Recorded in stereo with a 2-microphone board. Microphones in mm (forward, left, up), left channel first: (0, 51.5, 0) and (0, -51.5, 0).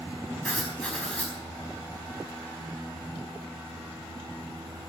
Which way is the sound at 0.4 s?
10° left (ahead or behind).